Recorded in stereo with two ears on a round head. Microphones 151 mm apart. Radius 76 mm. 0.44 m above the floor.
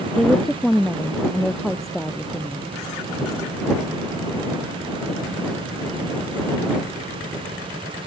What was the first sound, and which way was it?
A woman speaking, centre (ahead or behind).